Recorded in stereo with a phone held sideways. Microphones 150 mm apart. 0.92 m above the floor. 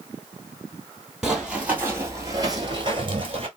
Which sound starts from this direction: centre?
Running footsteps, at 1.2 s.